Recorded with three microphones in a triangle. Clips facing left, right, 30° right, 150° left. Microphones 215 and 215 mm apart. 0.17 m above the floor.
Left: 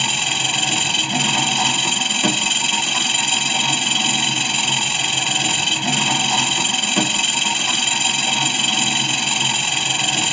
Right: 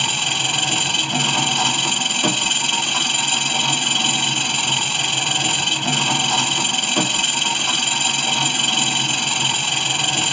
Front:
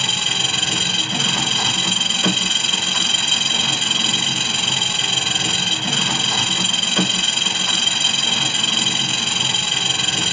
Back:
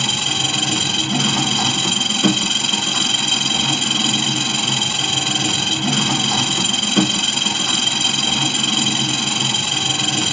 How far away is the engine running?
About 1.9 m.